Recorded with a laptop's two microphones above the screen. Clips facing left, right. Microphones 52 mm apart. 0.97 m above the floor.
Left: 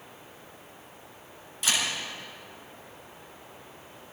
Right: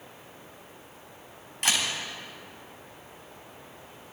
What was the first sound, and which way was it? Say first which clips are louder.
A camera shutter: right 1 dB; 55° right (ahead or behind).